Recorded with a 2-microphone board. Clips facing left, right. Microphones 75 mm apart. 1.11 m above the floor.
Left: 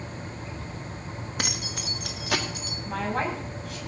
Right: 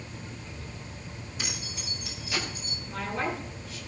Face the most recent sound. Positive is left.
turn(degrees=75)  # may be behind; listen again after turning